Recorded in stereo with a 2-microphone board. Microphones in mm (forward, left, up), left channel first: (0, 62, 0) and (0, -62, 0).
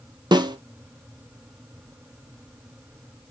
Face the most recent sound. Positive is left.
turn(degrees=-35)  # may be behind; listen again after turning